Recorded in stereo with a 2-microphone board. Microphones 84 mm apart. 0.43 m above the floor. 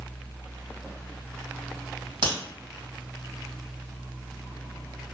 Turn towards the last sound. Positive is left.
turn(degrees=-60)  # may be behind; listen again after turning